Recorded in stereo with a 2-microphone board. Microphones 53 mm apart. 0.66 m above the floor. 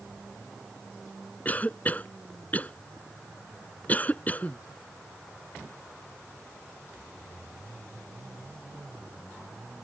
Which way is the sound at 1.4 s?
30° left (ahead or behind).